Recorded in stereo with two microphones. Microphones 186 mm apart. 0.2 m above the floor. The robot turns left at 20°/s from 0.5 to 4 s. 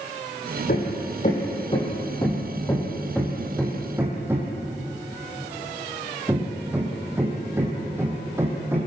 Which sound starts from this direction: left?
Hammering, at 0.7 s.